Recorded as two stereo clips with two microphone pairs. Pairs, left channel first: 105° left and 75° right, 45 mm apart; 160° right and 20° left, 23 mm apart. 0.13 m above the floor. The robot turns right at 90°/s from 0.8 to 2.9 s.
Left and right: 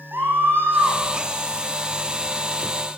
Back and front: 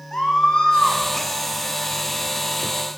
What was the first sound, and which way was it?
A scream, 110° right.